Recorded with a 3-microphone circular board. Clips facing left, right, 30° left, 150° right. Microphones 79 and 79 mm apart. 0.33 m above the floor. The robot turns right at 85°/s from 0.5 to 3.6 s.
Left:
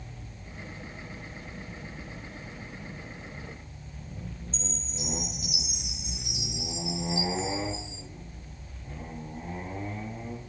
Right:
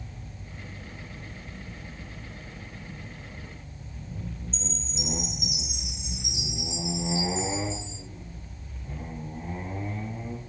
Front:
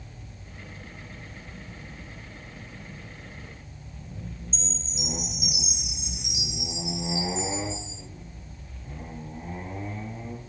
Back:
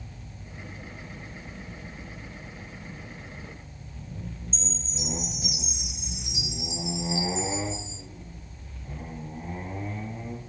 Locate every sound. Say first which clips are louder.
4.5 s a chime: right 2 dB, back 1 dB; 95° right, 6.5 m